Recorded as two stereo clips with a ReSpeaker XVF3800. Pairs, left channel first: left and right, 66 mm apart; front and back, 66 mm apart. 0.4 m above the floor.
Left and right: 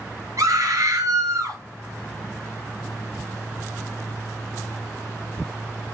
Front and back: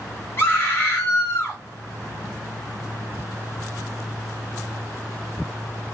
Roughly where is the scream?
Ahead right.